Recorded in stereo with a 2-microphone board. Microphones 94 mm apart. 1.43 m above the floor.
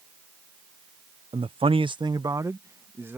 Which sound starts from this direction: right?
A man speaking, at 1.3 s.